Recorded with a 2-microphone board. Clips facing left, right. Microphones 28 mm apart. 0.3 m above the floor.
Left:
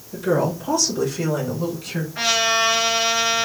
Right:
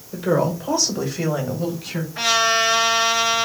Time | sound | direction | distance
0.1 | a woman speaking | 25° right (ahead or behind) | 1.3 m
2.1 | a trumpet | centre (ahead or behind) | 3 m